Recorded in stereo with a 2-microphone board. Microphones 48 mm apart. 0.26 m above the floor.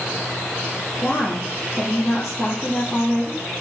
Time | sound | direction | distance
1.0 | a woman speaking | centre (ahead or behind) | 6 m